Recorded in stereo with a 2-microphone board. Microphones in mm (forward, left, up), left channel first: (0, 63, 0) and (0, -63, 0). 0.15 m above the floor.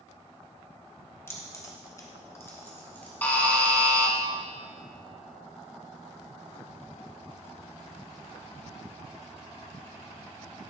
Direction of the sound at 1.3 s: 20° left (ahead or behind).